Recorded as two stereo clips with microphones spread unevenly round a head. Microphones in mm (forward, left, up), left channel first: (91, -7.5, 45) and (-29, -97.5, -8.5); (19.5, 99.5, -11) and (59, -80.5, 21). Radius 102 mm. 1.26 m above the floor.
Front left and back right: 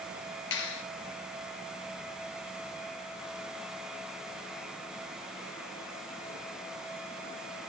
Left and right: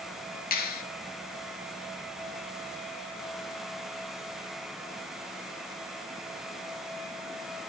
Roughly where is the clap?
Ahead left.